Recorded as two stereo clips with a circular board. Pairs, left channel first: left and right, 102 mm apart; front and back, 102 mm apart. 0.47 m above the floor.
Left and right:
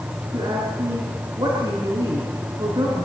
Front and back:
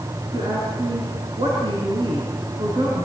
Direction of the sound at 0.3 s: 140° right.